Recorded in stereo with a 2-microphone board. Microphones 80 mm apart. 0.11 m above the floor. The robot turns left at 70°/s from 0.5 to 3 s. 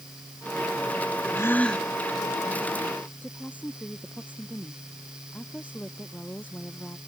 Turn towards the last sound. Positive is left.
turn(degrees=20)  # may be behind; listen again after turning